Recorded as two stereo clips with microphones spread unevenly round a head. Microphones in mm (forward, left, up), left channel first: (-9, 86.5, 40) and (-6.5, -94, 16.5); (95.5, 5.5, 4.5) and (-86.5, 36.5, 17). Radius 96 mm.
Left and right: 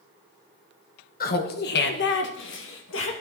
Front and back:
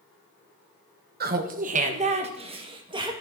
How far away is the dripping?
No dripping in this recording.